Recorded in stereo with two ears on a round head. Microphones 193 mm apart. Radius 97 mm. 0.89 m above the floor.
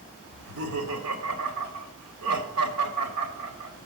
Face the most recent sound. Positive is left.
turn(degrees=-80)